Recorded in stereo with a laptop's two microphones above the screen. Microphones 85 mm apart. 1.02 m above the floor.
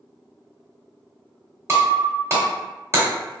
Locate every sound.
1.7 s breaking glass: 30° right (ahead or behind), 1.0 m